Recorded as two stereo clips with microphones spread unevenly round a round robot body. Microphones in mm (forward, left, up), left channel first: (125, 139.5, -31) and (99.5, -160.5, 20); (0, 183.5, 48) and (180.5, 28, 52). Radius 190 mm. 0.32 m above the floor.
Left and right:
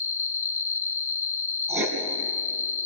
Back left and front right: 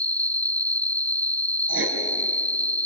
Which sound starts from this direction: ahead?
Writing, at 1.7 s.